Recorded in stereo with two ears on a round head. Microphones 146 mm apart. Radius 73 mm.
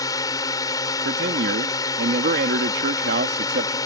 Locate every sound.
0.0 s a drone: 25° left (ahead or behind)
1.1 s a man speaking: 75° right (ahead or behind)